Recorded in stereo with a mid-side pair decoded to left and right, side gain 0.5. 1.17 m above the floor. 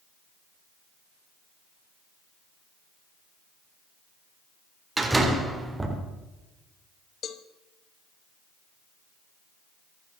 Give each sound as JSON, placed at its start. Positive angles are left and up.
{"t": 5.0, "sound": "a door slam", "azimuth_deg": -15, "distance_m": 3.5}
{"t": 7.2, "sound": "a cowbell", "azimuth_deg": 55, "distance_m": 1.1}